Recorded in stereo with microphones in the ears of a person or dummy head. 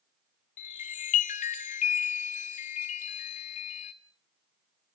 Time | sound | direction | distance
0.6 | a chime | 40° left (ahead or behind) | 1.5 m